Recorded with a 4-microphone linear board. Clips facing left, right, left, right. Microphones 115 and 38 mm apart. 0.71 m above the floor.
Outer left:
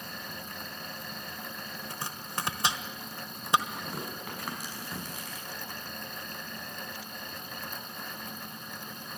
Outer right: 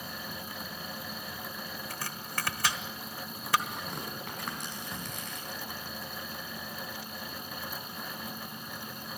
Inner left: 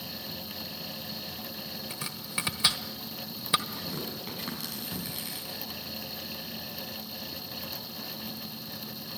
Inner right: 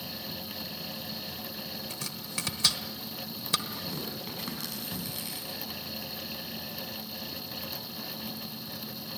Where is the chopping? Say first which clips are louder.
Outer left 3 dB, inner left 2 dB; 25° left (ahead or behind), 1.2 m.